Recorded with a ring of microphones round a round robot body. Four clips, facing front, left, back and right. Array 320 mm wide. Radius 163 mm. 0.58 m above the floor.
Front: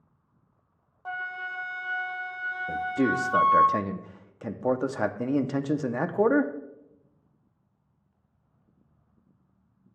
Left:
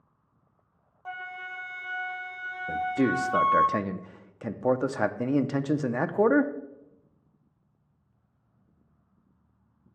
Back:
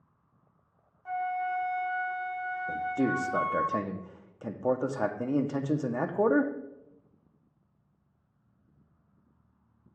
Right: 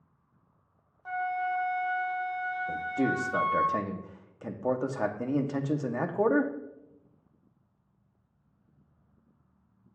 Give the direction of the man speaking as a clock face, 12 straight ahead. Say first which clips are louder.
Left 5 dB, front 3 dB; 10 o'clock.